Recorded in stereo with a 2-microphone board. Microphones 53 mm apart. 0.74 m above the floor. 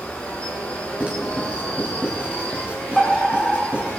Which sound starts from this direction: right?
Writing, at 1.0 s.